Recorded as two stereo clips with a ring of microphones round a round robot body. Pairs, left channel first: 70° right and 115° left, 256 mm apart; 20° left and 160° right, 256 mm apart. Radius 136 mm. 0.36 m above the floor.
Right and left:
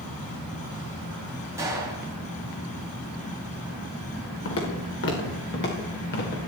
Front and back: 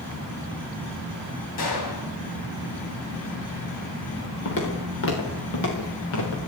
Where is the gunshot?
35° left, 3.5 m.